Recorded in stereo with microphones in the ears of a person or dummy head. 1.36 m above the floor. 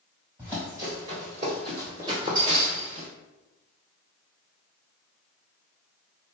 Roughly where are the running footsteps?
Centre.